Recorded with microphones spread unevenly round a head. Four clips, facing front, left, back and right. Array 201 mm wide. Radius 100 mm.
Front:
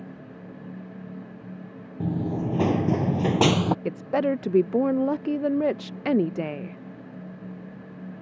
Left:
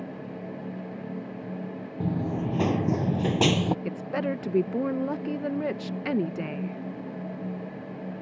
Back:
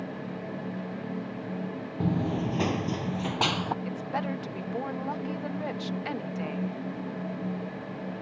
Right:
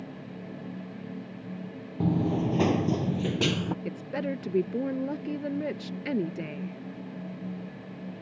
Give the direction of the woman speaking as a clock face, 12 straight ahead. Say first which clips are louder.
Left 3 dB, front 7 dB; 11 o'clock.